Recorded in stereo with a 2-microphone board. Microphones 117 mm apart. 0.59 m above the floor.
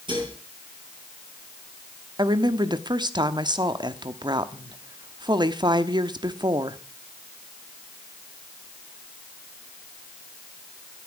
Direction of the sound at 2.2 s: 40° right (ahead or behind).